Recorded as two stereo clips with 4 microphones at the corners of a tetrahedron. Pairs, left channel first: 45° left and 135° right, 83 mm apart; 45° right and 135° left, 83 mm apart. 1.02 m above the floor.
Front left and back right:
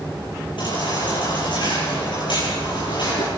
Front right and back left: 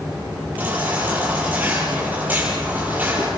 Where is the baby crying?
65° left, 9.5 m.